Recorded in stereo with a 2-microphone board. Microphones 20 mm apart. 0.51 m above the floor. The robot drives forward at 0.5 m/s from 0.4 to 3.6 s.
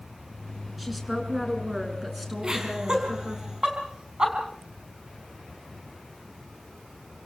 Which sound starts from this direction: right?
Laughter, at 2.4 s.